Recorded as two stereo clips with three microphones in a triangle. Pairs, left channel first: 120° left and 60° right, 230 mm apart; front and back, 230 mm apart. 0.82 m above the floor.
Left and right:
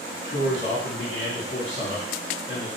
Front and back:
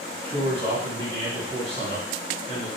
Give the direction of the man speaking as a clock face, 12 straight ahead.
8 o'clock.